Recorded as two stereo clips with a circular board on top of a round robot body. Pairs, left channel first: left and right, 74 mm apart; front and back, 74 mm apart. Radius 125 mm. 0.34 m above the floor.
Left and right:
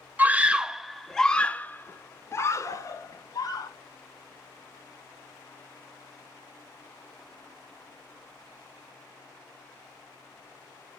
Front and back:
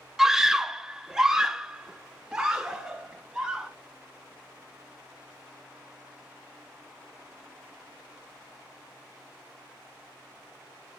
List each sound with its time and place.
0.2 s a scream: 105° right, 1.2 m; by 3.7 s 95° left, 1.9 m